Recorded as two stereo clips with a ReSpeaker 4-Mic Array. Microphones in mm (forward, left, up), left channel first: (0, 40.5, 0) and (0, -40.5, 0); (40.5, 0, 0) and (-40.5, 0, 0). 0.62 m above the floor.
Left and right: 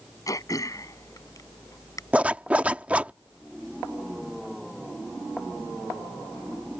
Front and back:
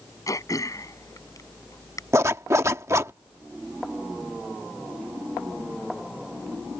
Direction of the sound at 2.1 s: 155° right.